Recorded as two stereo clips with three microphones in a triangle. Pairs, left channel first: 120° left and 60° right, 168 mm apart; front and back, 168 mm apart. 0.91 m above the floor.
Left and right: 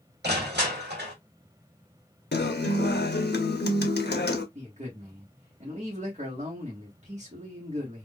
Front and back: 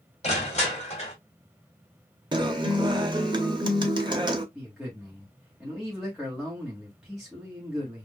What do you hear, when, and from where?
0.2 s crushing: 50° right, 1.8 m
2.3 s a guitar: 115° left, 0.7 m
4.5 s a man speaking: 95° right, 1.3 m